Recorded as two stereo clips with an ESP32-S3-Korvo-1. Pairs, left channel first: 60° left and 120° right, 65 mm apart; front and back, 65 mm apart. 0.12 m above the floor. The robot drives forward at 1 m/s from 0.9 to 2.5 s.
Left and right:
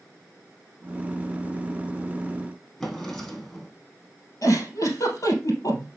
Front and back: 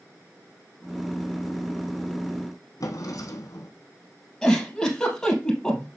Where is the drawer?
25° right, 1.4 m.